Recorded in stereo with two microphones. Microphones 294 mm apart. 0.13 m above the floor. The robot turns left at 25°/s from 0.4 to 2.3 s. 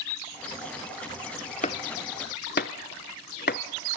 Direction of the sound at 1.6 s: 25° left (ahead or behind).